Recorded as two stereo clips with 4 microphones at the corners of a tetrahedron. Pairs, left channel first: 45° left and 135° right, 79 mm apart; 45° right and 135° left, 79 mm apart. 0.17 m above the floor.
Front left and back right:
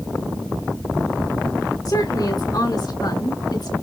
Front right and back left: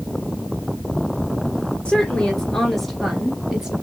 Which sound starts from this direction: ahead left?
A woman speaking, at 1.9 s.